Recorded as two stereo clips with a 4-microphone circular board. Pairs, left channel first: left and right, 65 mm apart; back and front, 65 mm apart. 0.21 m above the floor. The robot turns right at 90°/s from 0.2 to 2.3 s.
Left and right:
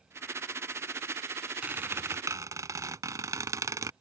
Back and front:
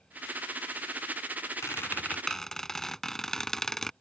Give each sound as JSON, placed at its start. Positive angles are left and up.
{"t": 1.6, "sound": "a squeak", "azimuth_deg": -160}